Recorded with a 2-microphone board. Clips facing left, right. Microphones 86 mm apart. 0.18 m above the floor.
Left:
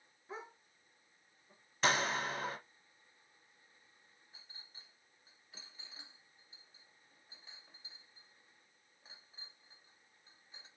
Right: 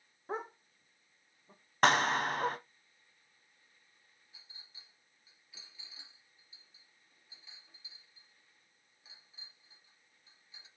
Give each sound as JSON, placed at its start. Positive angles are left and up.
{"t": 0.3, "sound": "a dog barking", "side_deg": -55, "distance_m": 0.7}
{"t": 1.8, "sound": "a clap", "side_deg": -55, "distance_m": 1.7}
{"t": 4.3, "sound": "a clink", "side_deg": 40, "distance_m": 2.5}